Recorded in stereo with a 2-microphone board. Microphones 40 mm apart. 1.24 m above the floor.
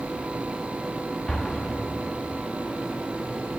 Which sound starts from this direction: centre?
An explosion, at 1.3 s.